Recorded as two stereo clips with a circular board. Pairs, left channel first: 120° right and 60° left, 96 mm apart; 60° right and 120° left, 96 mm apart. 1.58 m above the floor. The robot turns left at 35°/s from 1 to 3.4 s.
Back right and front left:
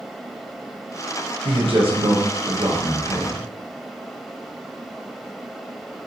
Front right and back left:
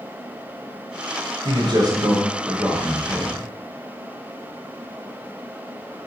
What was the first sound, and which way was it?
A man speaking, 90° left.